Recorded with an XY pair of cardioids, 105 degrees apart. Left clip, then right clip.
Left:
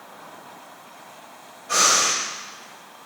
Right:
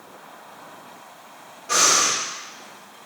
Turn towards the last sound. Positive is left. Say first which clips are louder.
# even
turn(degrees=-70)